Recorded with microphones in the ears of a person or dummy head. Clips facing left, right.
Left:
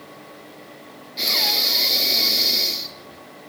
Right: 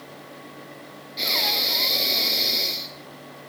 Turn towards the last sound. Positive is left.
turn(degrees=5)  # may be behind; listen again after turning